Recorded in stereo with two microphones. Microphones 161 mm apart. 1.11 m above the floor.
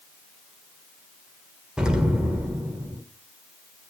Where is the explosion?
5° right (ahead or behind), 1.6 m.